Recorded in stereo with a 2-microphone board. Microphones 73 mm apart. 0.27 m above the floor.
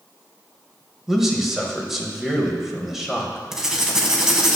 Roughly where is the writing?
Centre.